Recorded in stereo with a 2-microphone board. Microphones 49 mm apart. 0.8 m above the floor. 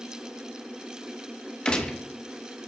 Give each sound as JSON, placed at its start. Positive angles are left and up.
{"t": 1.6, "sound": "a gunshot", "side_deg": 20, "distance_m": 1.0}